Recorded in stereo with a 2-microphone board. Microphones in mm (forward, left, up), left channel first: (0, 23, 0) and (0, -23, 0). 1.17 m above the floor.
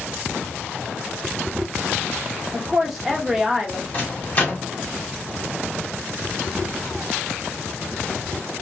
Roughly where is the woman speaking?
Centre.